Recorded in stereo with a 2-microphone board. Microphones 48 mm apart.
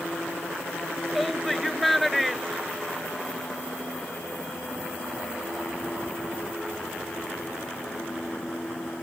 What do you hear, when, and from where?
1.1 s a shout: centre (ahead or behind)